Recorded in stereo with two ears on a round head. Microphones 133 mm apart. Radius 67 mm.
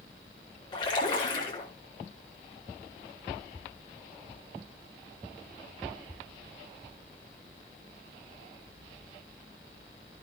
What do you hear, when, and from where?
0.7 s a splash: 30° left (ahead or behind), 5.5 m